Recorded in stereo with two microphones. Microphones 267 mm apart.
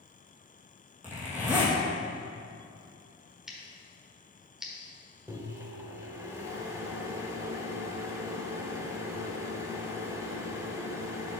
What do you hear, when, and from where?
1.0 s a zipper: 5° right (ahead or behind), 2 m
3.5 s scissors: centre (ahead or behind), 1.3 m
5.3 s a microwave: 10° right (ahead or behind), 0.9 m